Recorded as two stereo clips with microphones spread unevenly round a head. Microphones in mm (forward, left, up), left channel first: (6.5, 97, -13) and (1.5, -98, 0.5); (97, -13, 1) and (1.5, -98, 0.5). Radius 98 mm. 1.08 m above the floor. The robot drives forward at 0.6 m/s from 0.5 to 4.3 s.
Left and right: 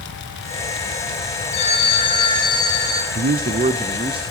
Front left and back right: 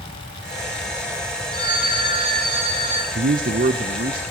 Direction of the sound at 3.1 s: 135° right.